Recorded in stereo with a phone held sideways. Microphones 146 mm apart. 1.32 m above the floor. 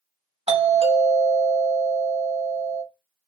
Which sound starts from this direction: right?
A doorbell, at 0.5 s.